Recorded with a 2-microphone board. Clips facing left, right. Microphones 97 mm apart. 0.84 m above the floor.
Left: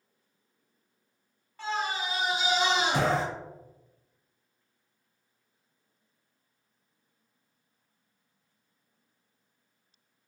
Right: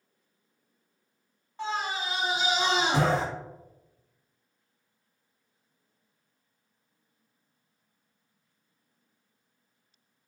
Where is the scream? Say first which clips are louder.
Even; 25° right (ahead or behind), 1.9 m.